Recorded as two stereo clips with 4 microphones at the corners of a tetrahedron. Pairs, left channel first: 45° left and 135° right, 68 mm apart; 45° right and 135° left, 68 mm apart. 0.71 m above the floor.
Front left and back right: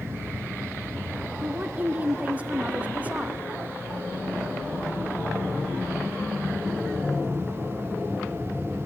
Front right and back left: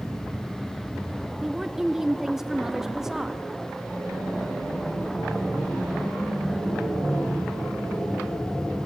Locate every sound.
1.4 s a woman speaking: 155° right, 0.6 m